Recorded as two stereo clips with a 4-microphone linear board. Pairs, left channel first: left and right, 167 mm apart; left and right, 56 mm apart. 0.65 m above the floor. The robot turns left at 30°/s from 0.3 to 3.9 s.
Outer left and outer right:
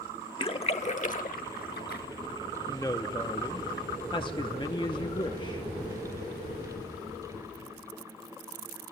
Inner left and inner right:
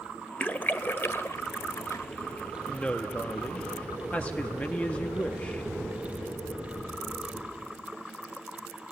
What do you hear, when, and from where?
0.4 s a splash: 30° left (ahead or behind), 0.7 m; by 2.0 s 75° left (ahead or behind), 0.7 m
2.7 s a woman speaking: 20° left (ahead or behind), 0.6 m; by 5.7 s 30° left (ahead or behind), 0.6 m